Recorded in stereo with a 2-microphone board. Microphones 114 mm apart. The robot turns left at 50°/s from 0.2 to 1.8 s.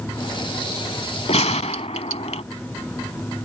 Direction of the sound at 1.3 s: 70° left (ahead or behind).